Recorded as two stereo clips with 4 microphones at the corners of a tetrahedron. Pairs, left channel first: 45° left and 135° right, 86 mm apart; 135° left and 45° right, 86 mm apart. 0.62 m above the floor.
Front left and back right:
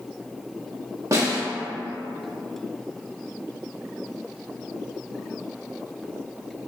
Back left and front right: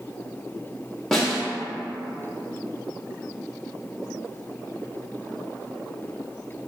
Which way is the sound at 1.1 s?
140° right.